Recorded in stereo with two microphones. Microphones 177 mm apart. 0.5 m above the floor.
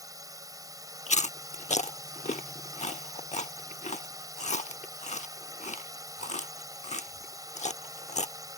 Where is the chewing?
40° left (ahead or behind).